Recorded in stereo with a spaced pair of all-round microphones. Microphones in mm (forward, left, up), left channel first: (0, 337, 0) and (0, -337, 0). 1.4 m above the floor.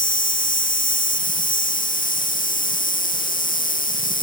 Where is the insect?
10° left (ahead or behind).